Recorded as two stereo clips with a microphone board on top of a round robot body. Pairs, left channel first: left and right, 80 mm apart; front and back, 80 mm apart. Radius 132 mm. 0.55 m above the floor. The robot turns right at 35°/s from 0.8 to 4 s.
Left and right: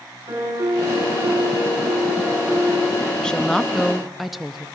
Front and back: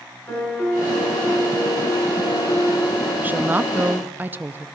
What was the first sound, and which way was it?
A piano, 65° right.